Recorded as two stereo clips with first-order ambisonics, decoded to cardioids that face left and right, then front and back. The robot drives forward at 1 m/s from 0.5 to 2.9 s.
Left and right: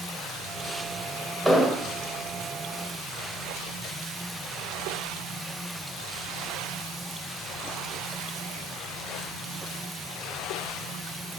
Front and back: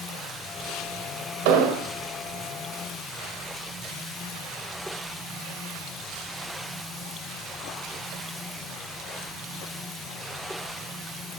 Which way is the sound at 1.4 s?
175° left.